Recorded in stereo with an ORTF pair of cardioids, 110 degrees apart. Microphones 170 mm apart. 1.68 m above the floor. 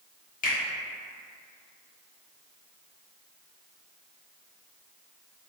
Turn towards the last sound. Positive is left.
turn(degrees=55)